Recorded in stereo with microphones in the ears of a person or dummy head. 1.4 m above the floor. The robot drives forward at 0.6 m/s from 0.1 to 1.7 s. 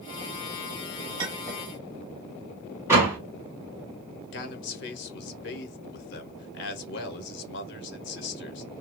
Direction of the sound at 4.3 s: 65° left (ahead or behind).